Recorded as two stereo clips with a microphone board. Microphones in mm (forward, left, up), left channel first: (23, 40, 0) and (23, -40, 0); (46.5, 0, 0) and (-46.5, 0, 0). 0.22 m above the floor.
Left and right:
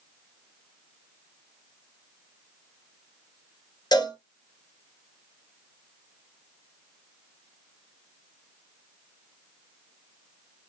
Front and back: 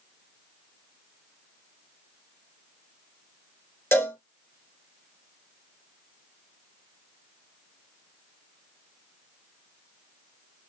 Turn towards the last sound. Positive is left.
turn(degrees=60)